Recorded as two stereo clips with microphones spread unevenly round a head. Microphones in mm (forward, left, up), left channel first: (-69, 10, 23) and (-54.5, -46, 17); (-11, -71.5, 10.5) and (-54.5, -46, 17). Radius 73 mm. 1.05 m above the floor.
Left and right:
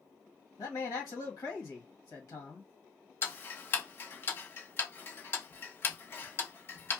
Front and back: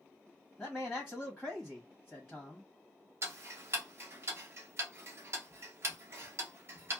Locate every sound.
0.6 s a man speaking: 60° left, 1.3 m
3.2 s ticking: 135° left, 0.7 m